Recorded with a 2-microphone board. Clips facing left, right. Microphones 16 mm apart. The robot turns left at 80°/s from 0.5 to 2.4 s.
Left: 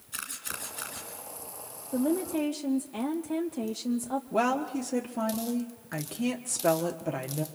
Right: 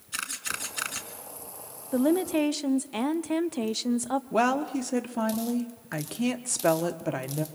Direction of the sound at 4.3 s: 25° right (ahead or behind).